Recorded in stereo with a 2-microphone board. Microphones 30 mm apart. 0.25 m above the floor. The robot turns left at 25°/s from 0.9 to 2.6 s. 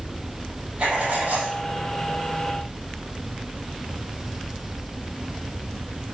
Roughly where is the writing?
Right.